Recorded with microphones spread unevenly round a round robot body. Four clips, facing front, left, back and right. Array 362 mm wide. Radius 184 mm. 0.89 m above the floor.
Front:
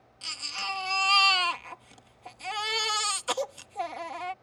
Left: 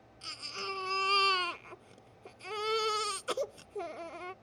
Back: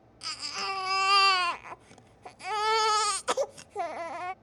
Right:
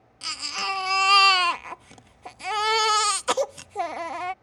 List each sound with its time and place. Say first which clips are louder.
0.2 s a baby crying: right 10 dB, back 1 dB; 95° right